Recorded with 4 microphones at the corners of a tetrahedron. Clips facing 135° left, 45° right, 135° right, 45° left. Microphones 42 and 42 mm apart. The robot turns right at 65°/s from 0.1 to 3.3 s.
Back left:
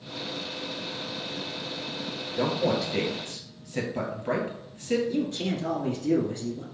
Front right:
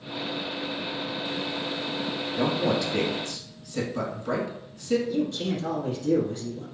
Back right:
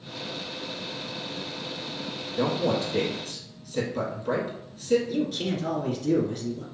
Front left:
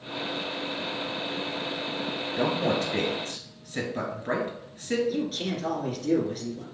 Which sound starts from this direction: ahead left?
A man speaking, at 2.4 s.